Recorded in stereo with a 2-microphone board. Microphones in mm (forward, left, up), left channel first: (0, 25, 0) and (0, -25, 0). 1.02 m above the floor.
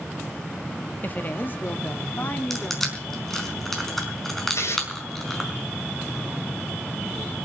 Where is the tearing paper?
70° left (ahead or behind), 6 m.